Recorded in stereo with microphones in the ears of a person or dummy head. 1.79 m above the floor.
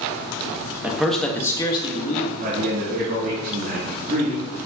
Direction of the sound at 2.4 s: 45° right (ahead or behind).